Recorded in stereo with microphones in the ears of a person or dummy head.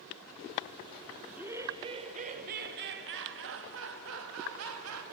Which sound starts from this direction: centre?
Laughter, at 1.2 s.